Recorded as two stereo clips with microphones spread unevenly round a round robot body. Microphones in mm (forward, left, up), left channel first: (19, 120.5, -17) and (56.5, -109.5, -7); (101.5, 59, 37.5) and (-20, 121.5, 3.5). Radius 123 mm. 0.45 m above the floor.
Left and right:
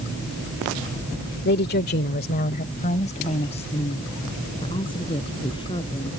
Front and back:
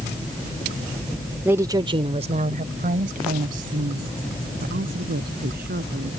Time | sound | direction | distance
1.4 | a woman speaking | 100° left | ?